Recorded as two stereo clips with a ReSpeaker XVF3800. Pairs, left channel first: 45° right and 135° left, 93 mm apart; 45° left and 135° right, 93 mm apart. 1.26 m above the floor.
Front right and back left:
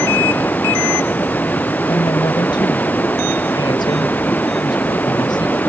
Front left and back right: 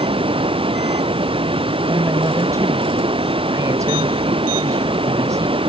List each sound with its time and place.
0.0 s running water: 115° right
1.9 s a woman speaking: 80° right